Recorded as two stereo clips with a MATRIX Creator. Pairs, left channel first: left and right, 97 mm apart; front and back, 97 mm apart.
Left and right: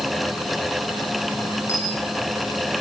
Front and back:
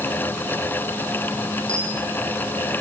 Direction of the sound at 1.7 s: 30° left.